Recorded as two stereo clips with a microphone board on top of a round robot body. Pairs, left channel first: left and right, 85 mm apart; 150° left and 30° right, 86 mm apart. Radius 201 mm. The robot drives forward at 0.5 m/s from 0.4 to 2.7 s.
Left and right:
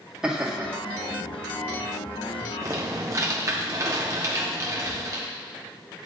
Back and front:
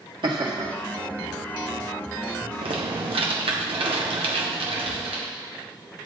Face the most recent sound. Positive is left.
turn(degrees=-40)